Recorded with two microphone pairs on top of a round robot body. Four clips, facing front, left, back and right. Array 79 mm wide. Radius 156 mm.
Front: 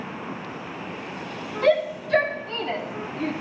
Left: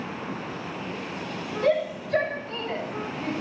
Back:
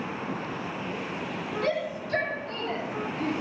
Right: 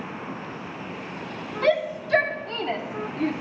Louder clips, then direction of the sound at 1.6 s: Right 1 dB, front 10 dB; 70° right.